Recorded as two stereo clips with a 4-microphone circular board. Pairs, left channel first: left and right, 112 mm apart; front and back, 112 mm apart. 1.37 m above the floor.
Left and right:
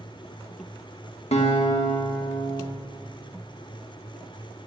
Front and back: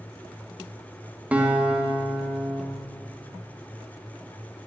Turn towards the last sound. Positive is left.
turn(degrees=100)